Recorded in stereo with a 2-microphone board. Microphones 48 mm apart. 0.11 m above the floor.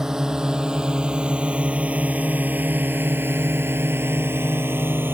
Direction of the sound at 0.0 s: 10° right (ahead or behind).